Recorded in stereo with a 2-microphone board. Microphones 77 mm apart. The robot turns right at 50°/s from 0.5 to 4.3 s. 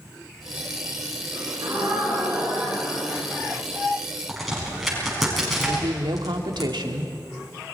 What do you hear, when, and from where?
1.3 s a gasp: 75° right, 10 m; by 3.7 s 45° left, 10 m
4.3 s a crack: centre (ahead or behind), 6.5 m
5.7 s a woman speaking: 75° right (ahead or behind), 1.7 m